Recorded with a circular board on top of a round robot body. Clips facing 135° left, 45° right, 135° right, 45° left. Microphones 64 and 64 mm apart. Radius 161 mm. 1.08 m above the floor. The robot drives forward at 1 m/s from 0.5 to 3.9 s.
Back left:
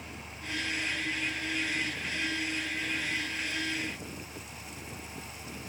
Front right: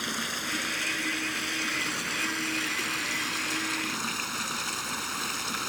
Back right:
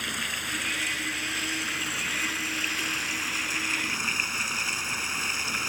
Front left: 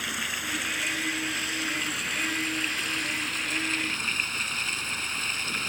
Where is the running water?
40° right; by 5.7 s 55° right.